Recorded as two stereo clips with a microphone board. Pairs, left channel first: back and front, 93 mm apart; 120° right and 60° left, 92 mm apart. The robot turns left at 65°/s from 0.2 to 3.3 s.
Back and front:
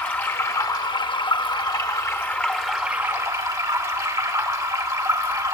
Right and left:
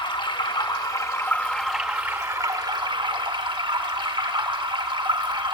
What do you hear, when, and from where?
0.0 s running water: 115° right, 1.0 m; by 5.5 s 45° left, 1.0 m